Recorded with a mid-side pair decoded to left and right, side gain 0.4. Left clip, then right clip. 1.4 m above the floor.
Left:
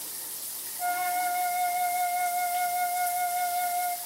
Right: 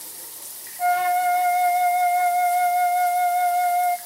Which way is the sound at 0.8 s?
55° right.